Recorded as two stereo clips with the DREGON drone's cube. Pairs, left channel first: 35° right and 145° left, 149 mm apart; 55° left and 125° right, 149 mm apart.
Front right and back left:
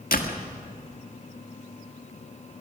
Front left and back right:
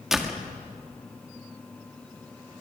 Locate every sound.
0.1 s a door slam: 35° right, 1.7 m